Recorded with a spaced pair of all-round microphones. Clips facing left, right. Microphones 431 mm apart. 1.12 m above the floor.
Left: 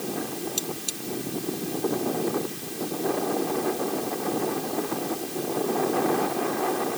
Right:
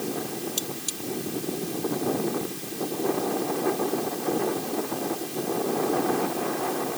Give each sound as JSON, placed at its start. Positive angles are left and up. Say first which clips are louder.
{"t": 0.6, "sound": "cutlery clinking", "louder": "left 1 dB", "side_deg": -30}